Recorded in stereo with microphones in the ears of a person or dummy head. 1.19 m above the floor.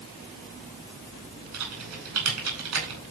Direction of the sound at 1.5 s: 85° right.